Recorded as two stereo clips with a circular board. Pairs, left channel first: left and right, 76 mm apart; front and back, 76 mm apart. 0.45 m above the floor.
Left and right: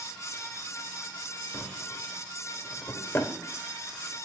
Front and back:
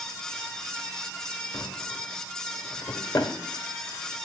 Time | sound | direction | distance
1.5 | a drawer | 30° left | 0.7 m